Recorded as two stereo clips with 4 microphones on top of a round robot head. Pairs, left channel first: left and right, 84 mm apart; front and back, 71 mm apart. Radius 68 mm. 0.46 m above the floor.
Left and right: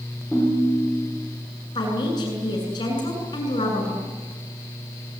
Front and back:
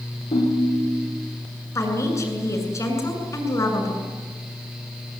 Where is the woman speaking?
45° left, 7.5 m.